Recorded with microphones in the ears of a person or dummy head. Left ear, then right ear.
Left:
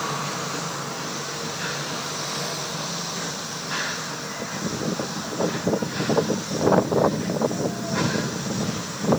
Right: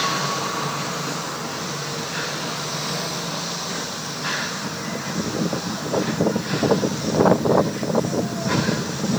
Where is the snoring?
No snoring in this recording.